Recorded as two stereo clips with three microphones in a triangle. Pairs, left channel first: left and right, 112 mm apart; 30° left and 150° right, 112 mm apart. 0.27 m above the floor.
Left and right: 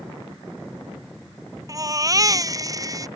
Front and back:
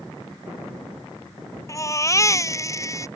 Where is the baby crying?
30° right.